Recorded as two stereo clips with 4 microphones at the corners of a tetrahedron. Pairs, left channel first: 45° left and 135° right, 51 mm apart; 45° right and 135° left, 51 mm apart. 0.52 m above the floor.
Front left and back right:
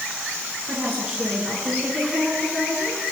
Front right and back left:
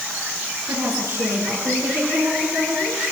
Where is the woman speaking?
150° left, 8.5 m; by 3.0 s 130° left, 8.5 m.